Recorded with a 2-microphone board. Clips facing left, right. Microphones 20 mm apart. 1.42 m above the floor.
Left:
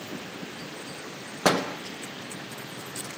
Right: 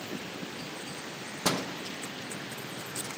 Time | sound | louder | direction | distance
1.4 | a door slam | left 7 dB | 60° left (ahead or behind) | 0.9 m